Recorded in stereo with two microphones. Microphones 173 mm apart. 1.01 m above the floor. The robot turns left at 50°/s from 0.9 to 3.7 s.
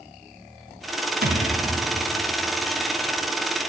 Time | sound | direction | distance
1.2 | a thud | 65° right (ahead or behind) | 2 m